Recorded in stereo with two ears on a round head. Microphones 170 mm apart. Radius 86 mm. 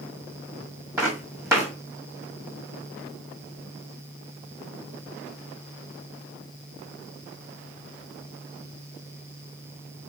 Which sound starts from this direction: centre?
Footsteps, at 1.0 s.